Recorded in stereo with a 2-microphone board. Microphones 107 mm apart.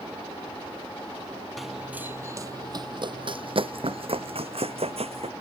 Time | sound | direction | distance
1.6 | running footsteps | centre (ahead or behind) | ?